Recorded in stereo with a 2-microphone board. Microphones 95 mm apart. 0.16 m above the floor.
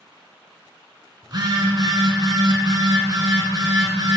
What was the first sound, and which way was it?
A phone buzzing, 45° right (ahead or behind).